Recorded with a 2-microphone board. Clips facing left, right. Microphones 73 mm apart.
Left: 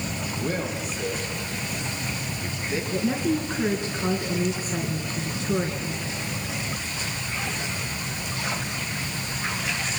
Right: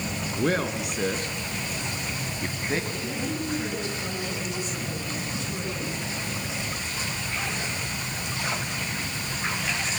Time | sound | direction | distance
0.4 | a man speaking | 75° right (ahead or behind) | 4 m
2.9 | a woman speaking | 45° left (ahead or behind) | 4 m